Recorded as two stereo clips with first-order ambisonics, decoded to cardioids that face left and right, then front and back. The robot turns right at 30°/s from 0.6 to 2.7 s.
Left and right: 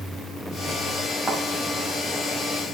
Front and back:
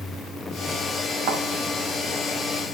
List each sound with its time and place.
1.3 s a thud: 175° right, 4 m; by 1.4 s 170° right, 4 m